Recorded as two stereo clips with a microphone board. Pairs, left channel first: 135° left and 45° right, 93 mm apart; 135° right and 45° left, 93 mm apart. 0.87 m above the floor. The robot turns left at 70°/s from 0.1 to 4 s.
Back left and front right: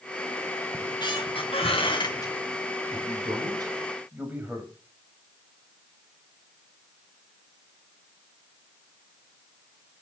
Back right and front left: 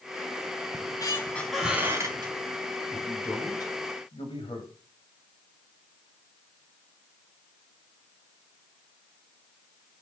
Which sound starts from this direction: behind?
A squeak, at 0.7 s.